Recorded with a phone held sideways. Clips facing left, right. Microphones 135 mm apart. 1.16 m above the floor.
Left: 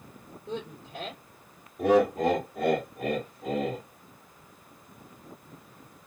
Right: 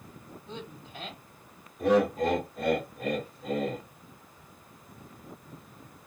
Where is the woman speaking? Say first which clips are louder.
Left 7 dB; 85° left, 2.5 m.